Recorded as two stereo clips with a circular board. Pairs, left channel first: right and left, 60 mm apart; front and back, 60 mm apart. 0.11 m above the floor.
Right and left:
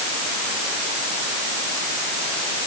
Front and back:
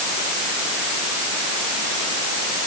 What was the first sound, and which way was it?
Only background noise.